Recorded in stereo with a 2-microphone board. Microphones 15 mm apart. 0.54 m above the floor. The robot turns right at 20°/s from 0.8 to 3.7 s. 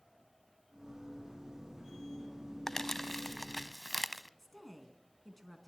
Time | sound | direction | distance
2.7 | crumpling | 25° left (ahead or behind) | 0.8 m
4.4 | a woman speaking | 15° left (ahead or behind) | 4.5 m